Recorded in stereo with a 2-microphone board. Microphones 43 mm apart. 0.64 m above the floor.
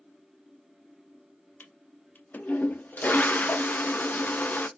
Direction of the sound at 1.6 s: 45° left (ahead or behind).